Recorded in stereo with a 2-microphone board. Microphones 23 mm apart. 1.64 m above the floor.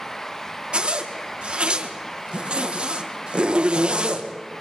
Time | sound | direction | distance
0.7 | a zipper | 55° right (ahead or behind) | 1.9 m